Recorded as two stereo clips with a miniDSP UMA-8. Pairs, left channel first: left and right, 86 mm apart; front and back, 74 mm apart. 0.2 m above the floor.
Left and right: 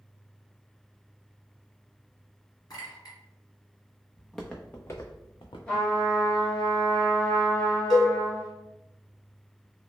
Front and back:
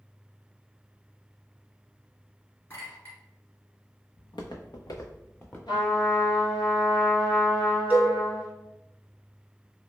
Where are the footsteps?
5° right, 0.8 m; by 5.6 s 65° left, 0.8 m.